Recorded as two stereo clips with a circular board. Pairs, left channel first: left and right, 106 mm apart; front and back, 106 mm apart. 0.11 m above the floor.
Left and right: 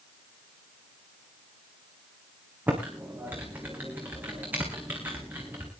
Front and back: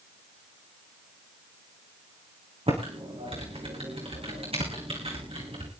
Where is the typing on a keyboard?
160° right, 4.5 m.